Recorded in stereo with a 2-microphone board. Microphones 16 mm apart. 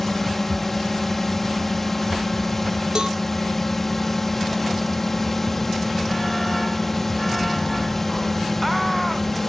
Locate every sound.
0.0 s a drone: 15° left (ahead or behind)
3.0 s a cowbell: 50° right (ahead or behind)